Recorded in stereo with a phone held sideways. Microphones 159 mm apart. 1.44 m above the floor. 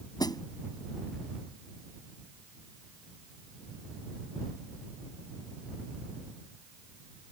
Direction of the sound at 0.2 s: 25° left (ahead or behind).